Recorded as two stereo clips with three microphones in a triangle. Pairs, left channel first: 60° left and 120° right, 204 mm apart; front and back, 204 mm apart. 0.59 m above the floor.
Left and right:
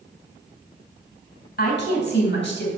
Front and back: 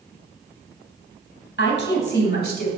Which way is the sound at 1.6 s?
25° left.